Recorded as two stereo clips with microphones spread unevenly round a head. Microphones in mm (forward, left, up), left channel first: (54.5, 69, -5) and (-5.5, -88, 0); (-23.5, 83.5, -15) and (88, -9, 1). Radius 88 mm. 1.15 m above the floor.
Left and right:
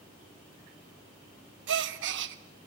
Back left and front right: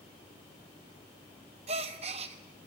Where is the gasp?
100° right, 1.1 m.